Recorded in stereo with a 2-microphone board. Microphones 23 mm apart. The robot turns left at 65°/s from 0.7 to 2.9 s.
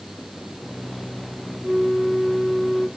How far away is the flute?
About 6 m.